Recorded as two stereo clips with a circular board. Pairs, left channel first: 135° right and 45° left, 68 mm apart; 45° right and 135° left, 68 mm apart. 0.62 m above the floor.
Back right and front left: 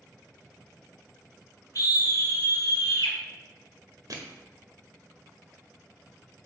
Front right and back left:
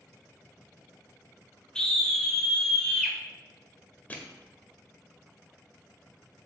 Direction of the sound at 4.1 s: 20° left.